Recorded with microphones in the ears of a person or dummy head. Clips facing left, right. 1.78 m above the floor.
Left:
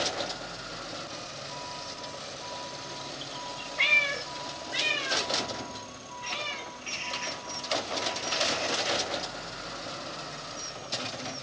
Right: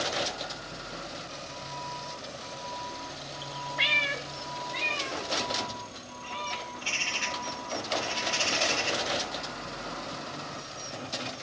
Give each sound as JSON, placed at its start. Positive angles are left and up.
{"t": 3.8, "sound": "a cat meowing", "side_deg": -10, "distance_m": 1.3}
{"t": 6.7, "sound": "a bird", "side_deg": -60, "distance_m": 1.9}